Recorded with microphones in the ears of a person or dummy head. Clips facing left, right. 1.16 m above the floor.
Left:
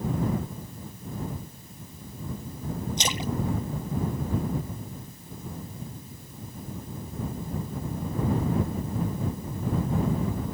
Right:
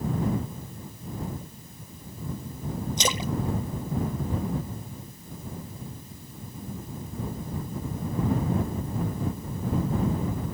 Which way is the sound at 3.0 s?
80° right.